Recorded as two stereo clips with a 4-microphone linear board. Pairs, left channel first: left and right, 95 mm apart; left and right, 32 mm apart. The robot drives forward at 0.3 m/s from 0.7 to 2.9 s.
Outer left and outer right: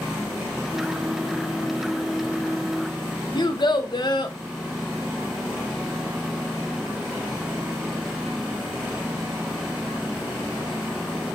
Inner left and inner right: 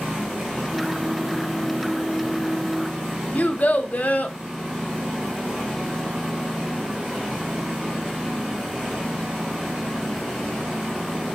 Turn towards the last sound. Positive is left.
turn(degrees=50)  # may be behind; listen again after turning